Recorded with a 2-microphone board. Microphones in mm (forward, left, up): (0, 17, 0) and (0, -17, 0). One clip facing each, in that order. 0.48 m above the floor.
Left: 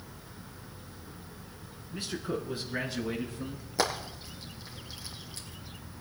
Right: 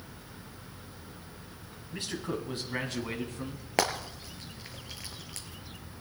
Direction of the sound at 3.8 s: 80° right.